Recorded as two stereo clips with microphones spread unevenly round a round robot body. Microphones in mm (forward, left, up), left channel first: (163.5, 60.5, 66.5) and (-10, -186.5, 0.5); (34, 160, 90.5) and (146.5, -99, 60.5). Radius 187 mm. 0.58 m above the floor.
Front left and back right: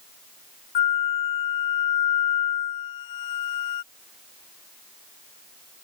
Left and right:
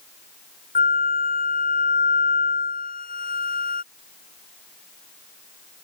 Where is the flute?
55° left.